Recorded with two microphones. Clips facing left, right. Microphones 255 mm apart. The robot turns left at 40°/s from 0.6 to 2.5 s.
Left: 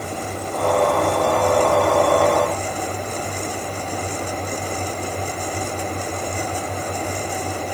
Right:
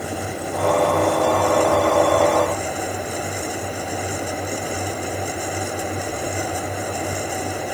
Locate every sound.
Only background noise.